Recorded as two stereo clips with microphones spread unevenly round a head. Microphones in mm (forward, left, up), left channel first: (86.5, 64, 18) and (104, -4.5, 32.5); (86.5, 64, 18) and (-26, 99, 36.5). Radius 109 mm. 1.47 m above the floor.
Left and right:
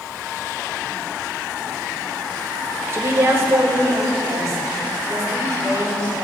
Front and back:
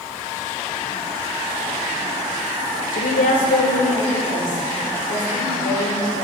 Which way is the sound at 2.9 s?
25° right.